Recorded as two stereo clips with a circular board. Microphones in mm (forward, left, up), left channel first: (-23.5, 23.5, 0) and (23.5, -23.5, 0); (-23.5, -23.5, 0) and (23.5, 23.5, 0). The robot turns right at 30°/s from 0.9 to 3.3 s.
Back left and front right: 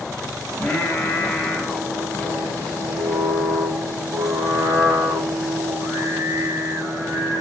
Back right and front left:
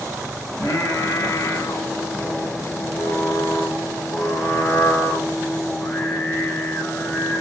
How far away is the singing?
About 0.9 m.